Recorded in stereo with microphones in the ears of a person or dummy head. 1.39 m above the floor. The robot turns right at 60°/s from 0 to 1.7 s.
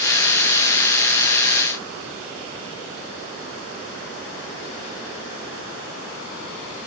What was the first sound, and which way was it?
Only background noise.